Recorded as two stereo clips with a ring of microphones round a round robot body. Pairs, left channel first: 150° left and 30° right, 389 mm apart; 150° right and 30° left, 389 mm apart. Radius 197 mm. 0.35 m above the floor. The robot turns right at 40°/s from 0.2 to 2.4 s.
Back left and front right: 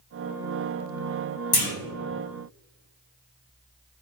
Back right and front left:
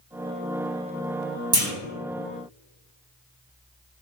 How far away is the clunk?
About 1.6 m.